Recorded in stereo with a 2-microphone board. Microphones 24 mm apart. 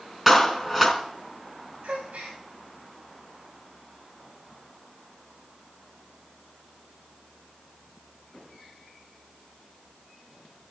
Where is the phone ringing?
I don't hear a phone ringing.